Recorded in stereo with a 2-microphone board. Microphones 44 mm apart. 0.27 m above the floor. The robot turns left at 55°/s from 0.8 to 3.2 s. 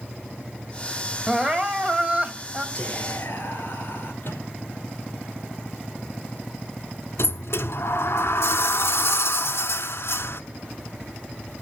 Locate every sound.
1.3 s crying: 20° right (ahead or behind), 1.4 m; by 2.6 s 25° right (ahead or behind), 1.4 m
2.8 s whispering: 25° left (ahead or behind), 5 m; by 4.1 s 50° left (ahead or behind), 5 m
4.2 s a microwave: 50° left (ahead or behind), 6 m
7.2 s a sliding door: 75° left (ahead or behind), 1.0 m